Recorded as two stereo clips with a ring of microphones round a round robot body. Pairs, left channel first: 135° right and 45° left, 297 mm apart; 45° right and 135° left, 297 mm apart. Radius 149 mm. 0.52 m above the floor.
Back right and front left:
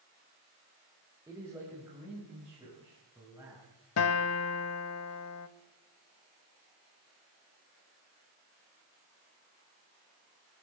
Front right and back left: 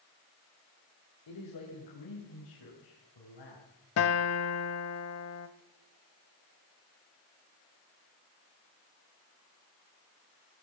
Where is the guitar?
90° right, 0.8 m.